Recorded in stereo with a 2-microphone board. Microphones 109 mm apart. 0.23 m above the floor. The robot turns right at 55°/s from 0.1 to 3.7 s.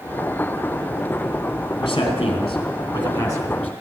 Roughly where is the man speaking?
Left.